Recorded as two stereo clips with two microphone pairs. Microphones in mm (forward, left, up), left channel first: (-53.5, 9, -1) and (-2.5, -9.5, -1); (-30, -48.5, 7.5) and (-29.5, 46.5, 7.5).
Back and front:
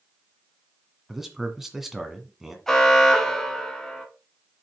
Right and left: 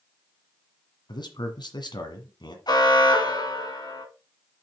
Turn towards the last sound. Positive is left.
turn(degrees=-120)